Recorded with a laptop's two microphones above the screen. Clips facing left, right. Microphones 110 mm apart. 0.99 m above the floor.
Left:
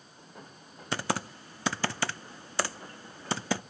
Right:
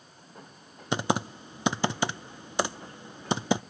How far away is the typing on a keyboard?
About 0.5 m.